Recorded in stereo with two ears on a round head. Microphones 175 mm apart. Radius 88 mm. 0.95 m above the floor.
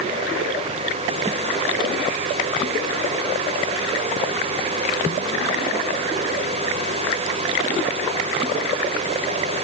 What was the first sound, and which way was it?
Only background noise.